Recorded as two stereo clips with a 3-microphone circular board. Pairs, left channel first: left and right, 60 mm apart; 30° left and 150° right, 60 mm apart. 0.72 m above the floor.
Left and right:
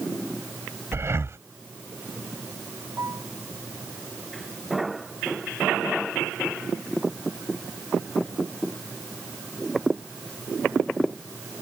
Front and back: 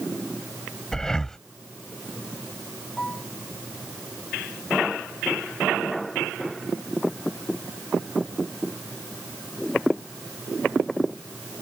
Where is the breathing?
50° right.